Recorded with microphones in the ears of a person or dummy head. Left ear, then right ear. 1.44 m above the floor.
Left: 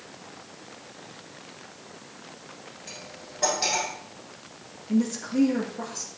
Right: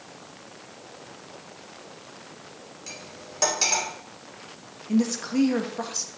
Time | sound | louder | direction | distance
2.9 | cutlery clinking | right 2 dB | 70° right (ahead or behind) | 3 m
4.9 | a woman speaking | right 2 dB | 40° right (ahead or behind) | 1.6 m